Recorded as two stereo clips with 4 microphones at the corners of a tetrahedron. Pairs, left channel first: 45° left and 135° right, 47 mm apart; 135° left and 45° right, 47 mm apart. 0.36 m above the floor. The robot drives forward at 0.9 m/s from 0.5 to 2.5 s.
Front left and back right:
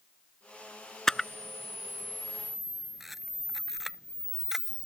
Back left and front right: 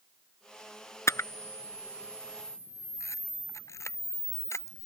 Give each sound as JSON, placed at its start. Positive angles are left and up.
{"t": 1.1, "sound": "a camera shutter", "azimuth_deg": 125}